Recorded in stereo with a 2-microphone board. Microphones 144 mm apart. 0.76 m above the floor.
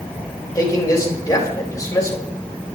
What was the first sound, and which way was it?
A man speaking, 25° left (ahead or behind).